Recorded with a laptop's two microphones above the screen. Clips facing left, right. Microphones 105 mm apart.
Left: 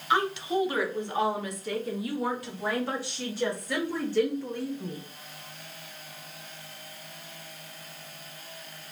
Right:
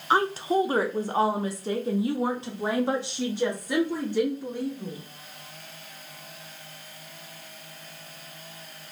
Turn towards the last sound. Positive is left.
turn(degrees=-15)  # may be behind; listen again after turning